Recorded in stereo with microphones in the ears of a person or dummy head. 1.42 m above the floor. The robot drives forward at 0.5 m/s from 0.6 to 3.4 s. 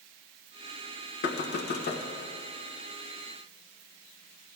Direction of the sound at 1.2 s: 60° left (ahead or behind).